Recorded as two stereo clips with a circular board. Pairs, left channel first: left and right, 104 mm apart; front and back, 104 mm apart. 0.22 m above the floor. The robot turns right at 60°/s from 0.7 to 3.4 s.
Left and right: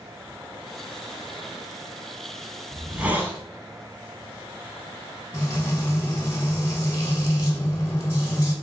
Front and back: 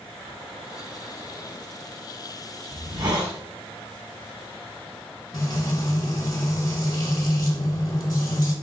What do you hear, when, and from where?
2.7 s a hiss: straight behind, 1.1 m; by 3.4 s 140° right, 1.1 m
5.3 s frying: 35° left, 1.5 m